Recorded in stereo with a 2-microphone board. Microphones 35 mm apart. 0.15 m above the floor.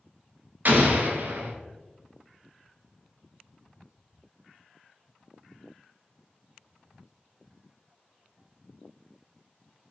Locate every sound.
0.7 s an explosion: 55° right (ahead or behind), 0.8 m